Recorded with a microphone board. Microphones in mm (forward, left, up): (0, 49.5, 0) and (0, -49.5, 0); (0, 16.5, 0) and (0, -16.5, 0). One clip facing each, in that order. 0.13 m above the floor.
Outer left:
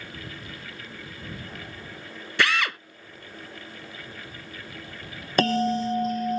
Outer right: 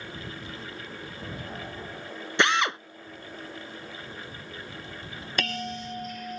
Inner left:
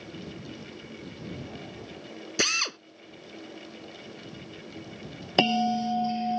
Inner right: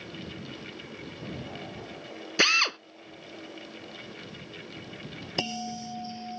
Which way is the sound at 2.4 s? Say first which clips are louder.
Outer right 1 dB, inner right 4 dB; 25° right (ahead or behind).